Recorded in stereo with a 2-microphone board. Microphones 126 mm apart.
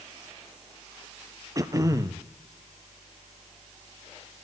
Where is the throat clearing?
30° right (ahead or behind), 0.7 m.